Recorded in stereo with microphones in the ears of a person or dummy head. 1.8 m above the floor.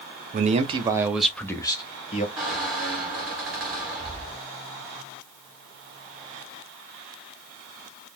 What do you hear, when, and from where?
0.3 s a man speaking: 45° right (ahead or behind), 0.7 m; by 2.3 s 35° left (ahead or behind), 0.9 m
2.4 s a squeak: 5° right (ahead or behind), 0.7 m